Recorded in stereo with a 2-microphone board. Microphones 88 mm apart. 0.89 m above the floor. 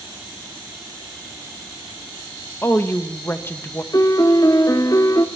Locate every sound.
2.6 s a woman speaking: 25° left (ahead or behind), 0.8 m
3.9 s a piano: 40° left (ahead or behind), 0.6 m